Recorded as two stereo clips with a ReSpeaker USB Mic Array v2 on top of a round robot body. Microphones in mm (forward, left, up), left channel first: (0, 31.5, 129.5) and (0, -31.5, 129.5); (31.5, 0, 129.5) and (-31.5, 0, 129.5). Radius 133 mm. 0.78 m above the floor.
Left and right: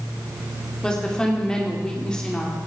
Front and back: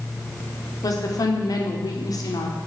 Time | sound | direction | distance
0.8 | a woman speaking | 15° left | 3 m